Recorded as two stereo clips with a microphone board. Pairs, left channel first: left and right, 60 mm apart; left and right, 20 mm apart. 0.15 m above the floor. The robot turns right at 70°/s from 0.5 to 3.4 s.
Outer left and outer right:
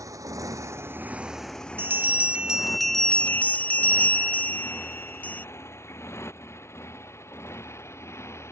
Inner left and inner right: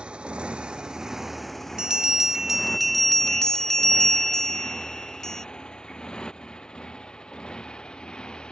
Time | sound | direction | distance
0.0 | a motorcycle | 65° right (ahead or behind) | ?
1.8 | a bell | 70° right | ?